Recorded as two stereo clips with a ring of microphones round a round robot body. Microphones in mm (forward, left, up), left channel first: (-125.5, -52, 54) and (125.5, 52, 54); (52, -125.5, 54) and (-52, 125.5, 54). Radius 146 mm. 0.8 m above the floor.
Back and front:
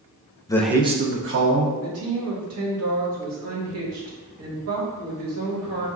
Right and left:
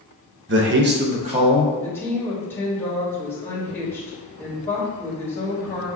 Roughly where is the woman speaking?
Ahead.